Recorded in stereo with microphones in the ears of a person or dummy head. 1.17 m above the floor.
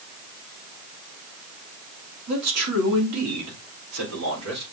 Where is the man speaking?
80° right, 3 m; by 4.6 s 75° right (ahead or behind), 4.5 m.